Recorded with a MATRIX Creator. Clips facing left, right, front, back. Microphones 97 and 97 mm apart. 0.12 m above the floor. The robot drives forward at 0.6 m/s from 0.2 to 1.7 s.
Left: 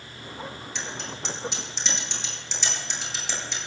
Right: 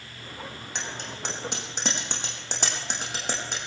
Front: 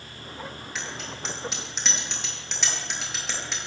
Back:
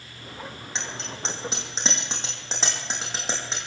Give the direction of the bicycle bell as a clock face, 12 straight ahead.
4 o'clock.